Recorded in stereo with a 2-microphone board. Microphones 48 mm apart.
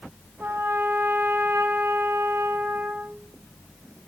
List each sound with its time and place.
0.4 s a trumpet: 60° right (ahead or behind), 1.3 m